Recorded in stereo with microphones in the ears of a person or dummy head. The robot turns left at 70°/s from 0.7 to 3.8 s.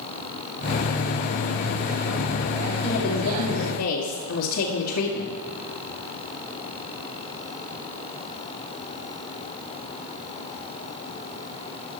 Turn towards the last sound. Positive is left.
turn(degrees=85)